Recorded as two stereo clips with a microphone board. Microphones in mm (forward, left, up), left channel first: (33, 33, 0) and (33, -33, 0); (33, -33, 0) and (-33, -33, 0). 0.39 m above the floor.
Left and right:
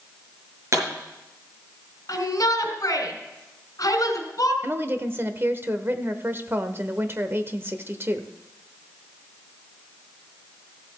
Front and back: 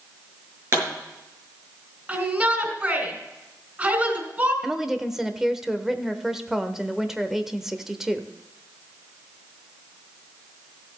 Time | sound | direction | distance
0.7 | a pop | 130° right | 5.5 m
2.1 | a shout | 115° left | 3.5 m
4.6 | a woman speaking | 100° right | 1.0 m